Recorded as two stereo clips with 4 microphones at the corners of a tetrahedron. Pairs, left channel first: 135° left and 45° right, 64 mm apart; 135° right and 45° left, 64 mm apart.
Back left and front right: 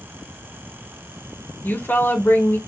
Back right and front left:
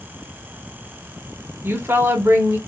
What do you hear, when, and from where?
1.6 s a woman speaking: 85° left, 2.0 m